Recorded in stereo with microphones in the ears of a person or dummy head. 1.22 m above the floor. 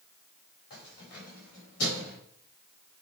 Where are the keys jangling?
60° left (ahead or behind), 5 m; by 2.2 s 80° left, 5.5 m.